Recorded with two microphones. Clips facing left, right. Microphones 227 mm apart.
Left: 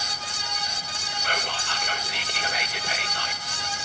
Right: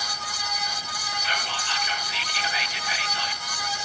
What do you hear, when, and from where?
1.2 s whispering: 55° left (ahead or behind), 2 m